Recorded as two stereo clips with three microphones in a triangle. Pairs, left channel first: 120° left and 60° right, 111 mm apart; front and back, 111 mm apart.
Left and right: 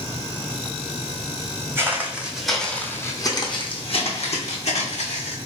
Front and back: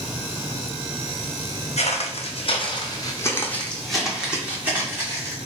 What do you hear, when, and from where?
1.8 s footsteps: 10° left, 1.1 m; by 5.4 s 115° left, 1.6 m